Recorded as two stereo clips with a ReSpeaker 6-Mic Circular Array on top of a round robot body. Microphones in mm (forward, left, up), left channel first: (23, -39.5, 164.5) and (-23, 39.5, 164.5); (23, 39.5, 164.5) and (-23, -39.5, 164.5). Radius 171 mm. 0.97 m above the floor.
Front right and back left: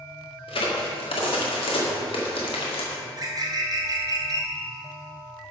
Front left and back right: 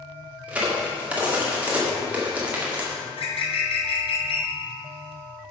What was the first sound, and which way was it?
A crack, 45° right.